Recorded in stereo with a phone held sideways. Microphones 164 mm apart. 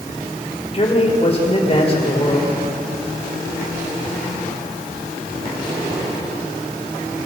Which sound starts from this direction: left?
A man speaking, at 0.7 s.